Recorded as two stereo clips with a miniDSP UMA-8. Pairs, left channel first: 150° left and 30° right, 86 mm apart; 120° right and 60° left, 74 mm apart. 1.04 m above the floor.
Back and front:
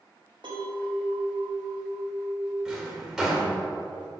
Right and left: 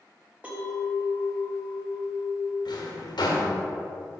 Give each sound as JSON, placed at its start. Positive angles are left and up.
{"t": 0.4, "sound": "a clink", "azimuth_deg": -10, "distance_m": 1.8}
{"t": 2.6, "sound": "a drawer", "azimuth_deg": -115, "distance_m": 1.9}